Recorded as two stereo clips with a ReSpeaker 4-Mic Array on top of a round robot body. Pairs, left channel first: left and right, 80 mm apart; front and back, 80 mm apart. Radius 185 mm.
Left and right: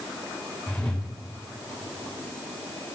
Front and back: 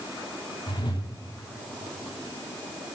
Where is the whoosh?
15° left, 4 m.